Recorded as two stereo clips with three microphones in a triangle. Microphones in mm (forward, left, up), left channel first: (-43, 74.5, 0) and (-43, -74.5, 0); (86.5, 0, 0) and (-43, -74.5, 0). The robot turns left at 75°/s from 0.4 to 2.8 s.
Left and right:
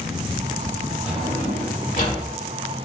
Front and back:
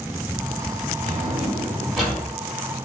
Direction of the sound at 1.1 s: 170° right.